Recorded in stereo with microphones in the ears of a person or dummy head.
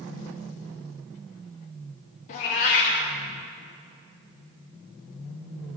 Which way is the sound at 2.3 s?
40° left (ahead or behind).